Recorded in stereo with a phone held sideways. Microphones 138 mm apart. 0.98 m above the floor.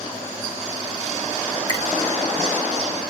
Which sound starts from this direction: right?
A finger snap, at 1.7 s.